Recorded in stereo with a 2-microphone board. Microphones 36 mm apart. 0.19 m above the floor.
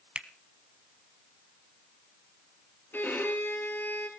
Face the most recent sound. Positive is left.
turn(degrees=65)  # may be behind; listen again after turning